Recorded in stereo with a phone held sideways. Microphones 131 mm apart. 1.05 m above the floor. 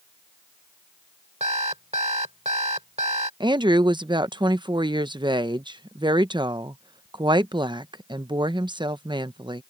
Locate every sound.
1.4 s an alarm clock: 55° right (ahead or behind)
3.4 s a woman speaking: 35° right (ahead or behind)